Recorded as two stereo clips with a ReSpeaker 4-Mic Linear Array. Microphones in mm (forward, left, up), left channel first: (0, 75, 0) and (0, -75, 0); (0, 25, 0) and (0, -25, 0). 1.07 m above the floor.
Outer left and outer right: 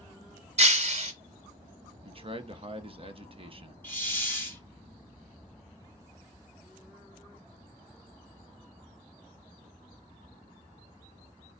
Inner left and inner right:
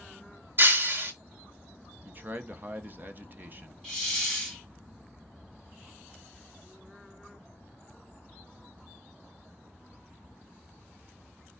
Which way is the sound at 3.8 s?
15° left (ahead or behind).